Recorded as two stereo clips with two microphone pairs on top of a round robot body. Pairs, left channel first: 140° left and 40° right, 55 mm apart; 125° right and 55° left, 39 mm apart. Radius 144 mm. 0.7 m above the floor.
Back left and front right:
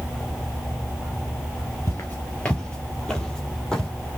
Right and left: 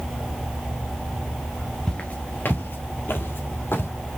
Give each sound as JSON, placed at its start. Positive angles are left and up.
{"t": 1.9, "sound": "footsteps", "azimuth_deg": 165, "distance_m": 0.7}